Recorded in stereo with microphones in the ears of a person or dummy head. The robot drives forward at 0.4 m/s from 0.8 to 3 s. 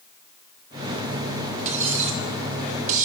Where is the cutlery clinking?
45° right (ahead or behind), 3 m; by 3.0 s 50° right (ahead or behind), 3 m.